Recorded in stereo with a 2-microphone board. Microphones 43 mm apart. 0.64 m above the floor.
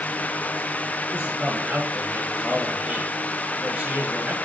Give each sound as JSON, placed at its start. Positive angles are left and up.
{"t": 1.1, "sound": "a man speaking", "side_deg": -20, "distance_m": 8.0}